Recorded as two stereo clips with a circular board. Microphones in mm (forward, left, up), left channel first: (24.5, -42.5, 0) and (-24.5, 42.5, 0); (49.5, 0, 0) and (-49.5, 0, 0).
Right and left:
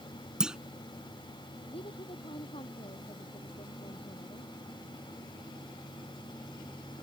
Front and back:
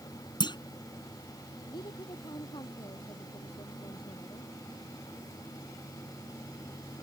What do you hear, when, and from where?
0.4 s a clunk: 40° left
1.7 s a woman speaking: 40° right